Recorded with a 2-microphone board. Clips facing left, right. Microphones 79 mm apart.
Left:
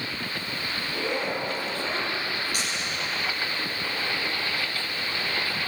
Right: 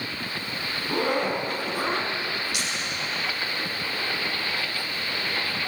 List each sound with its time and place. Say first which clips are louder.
0.8 s a zipper: right 5 dB; 55° right (ahead or behind), 4.5 m
2.5 s a camera shutter: even; 40° left (ahead or behind), 8.5 m